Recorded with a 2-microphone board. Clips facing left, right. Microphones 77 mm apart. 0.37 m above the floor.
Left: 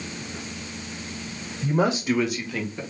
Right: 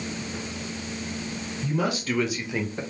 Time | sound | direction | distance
1.6 | a man speaking | 40° left (ahead or behind) | 1.0 m